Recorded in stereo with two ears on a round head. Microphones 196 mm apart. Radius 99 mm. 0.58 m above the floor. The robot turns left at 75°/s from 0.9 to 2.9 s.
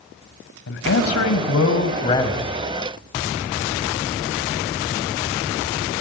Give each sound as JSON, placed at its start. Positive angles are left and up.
{"t": 0.7, "sound": "a man speaking", "azimuth_deg": 115, "distance_m": 3.5}